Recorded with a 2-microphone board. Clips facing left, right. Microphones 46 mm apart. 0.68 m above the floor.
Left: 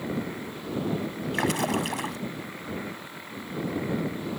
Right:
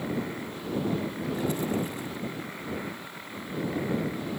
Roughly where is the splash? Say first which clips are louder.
Left 4 dB; left.